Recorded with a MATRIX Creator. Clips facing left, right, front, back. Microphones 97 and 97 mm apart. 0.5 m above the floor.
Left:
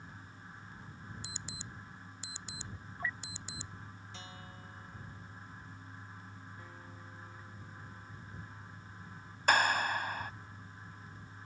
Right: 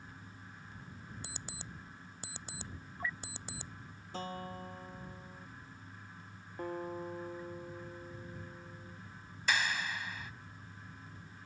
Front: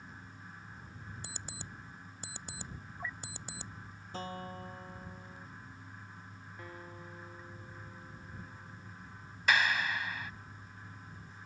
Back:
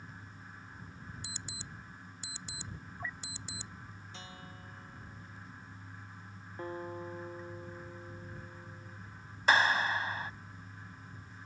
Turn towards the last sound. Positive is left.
turn(degrees=125)